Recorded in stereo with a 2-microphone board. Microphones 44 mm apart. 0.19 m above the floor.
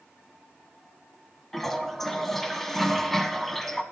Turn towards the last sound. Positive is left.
turn(degrees=5)  # may be behind; listen again after turning